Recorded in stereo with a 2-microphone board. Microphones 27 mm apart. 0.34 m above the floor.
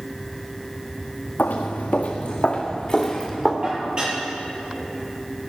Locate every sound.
1.4 s footsteps: 75° left (ahead or behind), 1.9 m; by 3.5 s 5° left (ahead or behind), 2.5 m
3.6 s dishes clattering: 35° right (ahead or behind), 6 m